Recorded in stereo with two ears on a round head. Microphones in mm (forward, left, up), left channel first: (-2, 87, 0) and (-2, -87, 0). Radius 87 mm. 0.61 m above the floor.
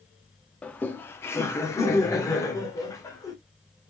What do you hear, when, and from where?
0.6 s laughter: 5° left (ahead or behind), 0.6 m; by 3.3 s 20° left (ahead or behind), 1.9 m